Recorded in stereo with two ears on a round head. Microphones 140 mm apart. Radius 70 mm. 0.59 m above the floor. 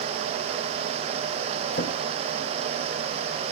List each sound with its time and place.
1.7 s a drawer: 60° left (ahead or behind), 1.6 m